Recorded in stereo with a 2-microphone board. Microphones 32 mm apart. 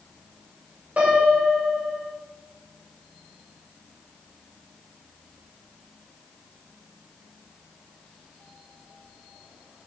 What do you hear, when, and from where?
1.0 s a piano: 50° right (ahead or behind), 4.5 m